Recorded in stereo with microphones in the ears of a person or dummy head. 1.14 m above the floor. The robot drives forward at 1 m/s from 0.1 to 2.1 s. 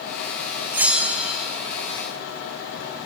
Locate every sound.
0.7 s a bell: 5° right (ahead or behind), 1.0 m